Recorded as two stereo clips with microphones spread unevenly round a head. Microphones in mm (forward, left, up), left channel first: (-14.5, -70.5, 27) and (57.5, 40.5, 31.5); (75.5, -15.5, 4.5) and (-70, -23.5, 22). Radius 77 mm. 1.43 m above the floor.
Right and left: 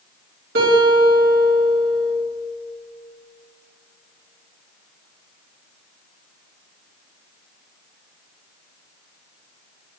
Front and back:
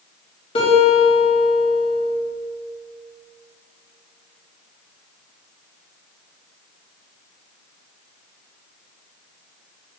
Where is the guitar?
60° left, 2.5 m.